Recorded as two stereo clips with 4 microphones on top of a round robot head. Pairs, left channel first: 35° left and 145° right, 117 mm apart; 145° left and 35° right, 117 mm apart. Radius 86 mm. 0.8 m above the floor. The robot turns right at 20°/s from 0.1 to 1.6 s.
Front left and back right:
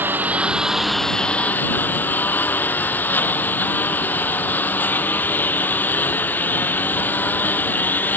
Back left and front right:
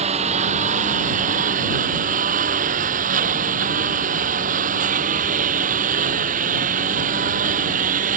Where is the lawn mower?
70° right; by 8.2 s 40° right.